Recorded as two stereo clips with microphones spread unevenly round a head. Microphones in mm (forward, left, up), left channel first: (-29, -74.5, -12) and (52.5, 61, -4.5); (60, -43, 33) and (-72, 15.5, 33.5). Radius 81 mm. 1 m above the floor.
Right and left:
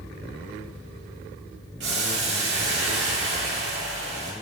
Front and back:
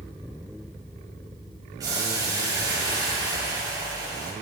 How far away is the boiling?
About 2.5 m.